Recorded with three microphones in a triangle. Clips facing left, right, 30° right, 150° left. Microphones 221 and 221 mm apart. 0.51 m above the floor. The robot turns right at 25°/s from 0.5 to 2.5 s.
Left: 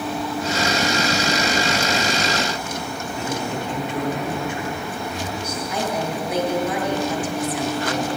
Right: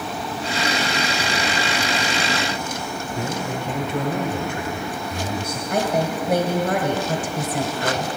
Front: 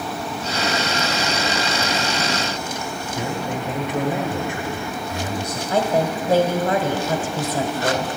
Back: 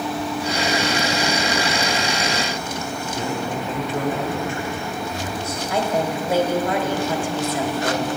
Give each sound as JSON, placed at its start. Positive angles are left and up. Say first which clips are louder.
{"t": 3.1, "sound": "a man speaking", "louder": "left 1 dB, even", "azimuth_deg": -100, "distance_m": 2.0}
{"t": 5.7, "sound": "a woman speaking", "louder": "right 4 dB, front 2 dB", "azimuth_deg": -95, "distance_m": 1.8}